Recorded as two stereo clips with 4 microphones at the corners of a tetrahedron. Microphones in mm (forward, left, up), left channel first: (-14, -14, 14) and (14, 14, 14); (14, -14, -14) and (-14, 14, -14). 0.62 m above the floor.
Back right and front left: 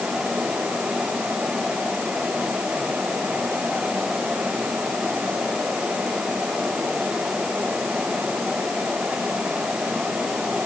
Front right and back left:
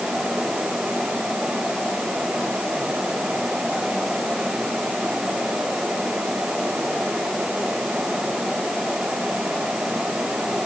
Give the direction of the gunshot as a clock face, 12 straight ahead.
No gunshot in this recording.